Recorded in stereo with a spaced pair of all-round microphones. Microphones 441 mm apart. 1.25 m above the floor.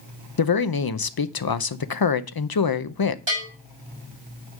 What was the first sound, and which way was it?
A man speaking, 55° left (ahead or behind).